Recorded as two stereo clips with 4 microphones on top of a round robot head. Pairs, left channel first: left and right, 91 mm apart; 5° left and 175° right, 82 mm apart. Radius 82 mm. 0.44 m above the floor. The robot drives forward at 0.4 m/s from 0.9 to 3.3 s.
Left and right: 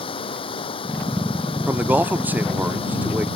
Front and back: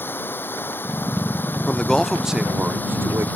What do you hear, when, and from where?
0.0 s running water: 70° left; by 3.4 s 75° left
1.7 s a man speaking: 55° right; by 3.3 s 150° right